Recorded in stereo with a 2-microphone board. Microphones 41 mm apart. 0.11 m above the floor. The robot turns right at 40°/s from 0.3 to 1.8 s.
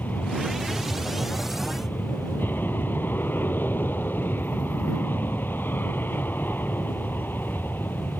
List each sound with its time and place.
0.0 s an aircraft: 60° left; by 8.2 s 120° left